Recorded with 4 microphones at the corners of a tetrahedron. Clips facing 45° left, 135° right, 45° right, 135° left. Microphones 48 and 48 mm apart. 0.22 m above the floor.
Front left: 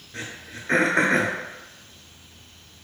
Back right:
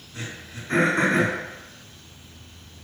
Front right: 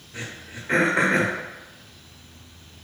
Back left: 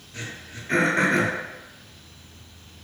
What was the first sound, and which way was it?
Throat clearing, 30° left.